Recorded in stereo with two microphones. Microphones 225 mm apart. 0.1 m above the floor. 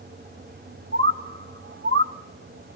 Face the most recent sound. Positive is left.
turn(degrees=-75)  # may be behind; listen again after turning